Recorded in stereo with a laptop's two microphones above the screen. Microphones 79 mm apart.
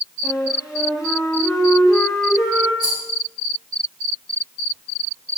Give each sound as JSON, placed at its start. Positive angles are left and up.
{"t": 0.2, "sound": "a flute", "side_deg": 50, "distance_m": 5.0}
{"t": 2.8, "sound": "a rattle", "side_deg": 75, "distance_m": 7.0}